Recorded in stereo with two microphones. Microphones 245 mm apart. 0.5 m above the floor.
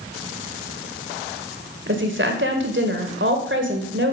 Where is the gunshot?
No gunshot in this recording.